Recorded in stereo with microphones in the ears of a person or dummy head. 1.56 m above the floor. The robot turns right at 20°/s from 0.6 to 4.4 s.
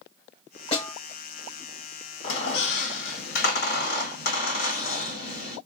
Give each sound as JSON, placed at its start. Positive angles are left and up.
{"t": 0.7, "sound": "a snare drum", "side_deg": 35, "distance_m": 1.3}
{"t": 2.2, "sound": "a squeak", "azimuth_deg": 75, "distance_m": 1.3}